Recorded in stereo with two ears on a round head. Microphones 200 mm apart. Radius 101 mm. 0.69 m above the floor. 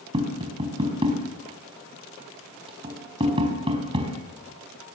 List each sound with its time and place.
0.1 s tapping: 25° right (ahead or behind), 4.5 m